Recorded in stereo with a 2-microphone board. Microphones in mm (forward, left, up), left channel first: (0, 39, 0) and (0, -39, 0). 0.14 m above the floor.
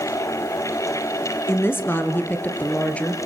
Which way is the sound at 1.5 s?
30° left (ahead or behind).